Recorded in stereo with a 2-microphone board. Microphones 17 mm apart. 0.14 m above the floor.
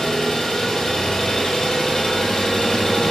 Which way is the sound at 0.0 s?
65° left (ahead or behind).